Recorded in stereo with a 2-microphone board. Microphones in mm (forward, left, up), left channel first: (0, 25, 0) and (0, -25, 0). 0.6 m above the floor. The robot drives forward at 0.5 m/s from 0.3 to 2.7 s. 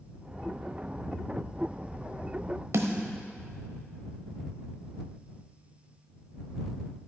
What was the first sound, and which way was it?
A snare drum, 75° right (ahead or behind).